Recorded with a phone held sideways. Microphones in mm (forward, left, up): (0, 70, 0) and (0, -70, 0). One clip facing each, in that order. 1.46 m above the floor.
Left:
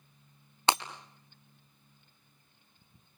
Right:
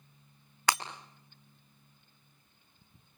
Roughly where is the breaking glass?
Left.